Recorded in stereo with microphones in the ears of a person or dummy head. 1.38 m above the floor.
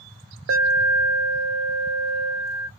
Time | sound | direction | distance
0.5 | an alarm | 65° right (ahead or behind) | 0.6 m